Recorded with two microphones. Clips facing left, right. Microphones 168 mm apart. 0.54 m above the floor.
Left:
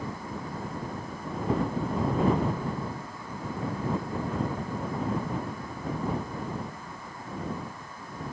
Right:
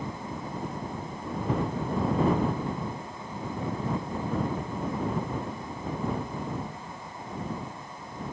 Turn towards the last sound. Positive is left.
No sound to turn to.